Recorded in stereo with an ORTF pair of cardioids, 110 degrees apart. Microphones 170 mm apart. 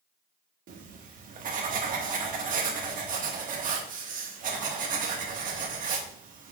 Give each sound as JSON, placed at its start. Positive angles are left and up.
{"t": 0.7, "sound": "writing", "azimuth_deg": -55, "distance_m": 1.5}